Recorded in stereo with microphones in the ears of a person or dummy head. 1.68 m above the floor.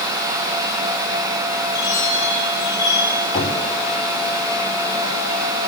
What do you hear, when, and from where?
1.7 s a chime: 20° left (ahead or behind), 10 m
3.3 s knocking: 35° left (ahead or behind), 5.5 m